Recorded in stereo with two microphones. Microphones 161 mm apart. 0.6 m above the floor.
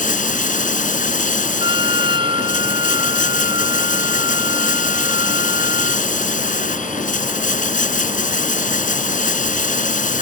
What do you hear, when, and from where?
0.0 s running water: 55° left (ahead or behind)
1.6 s a trumpet: 30° right (ahead or behind)